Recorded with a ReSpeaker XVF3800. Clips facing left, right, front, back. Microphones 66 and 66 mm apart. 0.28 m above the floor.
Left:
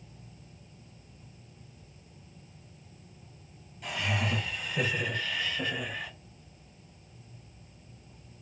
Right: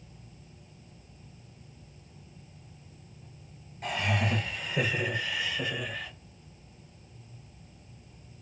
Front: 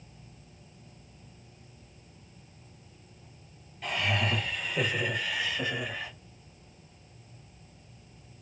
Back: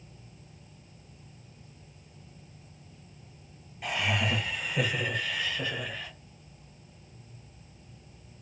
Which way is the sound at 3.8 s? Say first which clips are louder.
Right 2 dB, even; 110° right.